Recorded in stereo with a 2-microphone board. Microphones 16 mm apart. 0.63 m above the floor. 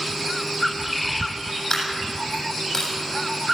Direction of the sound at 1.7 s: 40° left (ahead or behind).